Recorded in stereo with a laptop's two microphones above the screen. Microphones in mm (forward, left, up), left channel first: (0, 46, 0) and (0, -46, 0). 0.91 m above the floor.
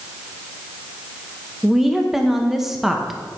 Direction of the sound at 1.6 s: 5° right (ahead or behind).